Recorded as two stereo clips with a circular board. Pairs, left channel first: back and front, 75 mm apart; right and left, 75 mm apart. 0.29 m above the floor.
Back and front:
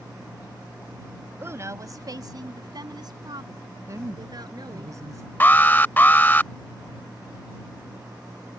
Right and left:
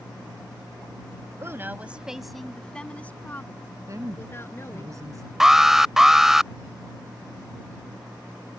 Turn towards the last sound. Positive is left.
turn(degrees=170)